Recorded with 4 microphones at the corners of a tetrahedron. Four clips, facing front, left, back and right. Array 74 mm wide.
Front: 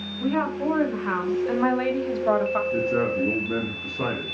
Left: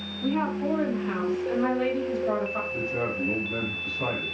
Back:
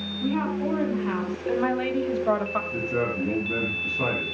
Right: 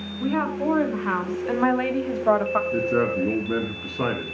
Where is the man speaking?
75° right, 3.5 m.